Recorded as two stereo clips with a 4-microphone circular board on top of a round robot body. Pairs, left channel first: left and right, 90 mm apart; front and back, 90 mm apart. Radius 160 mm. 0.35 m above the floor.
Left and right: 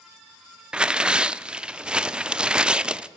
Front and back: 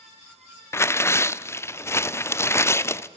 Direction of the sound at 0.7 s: 20° right.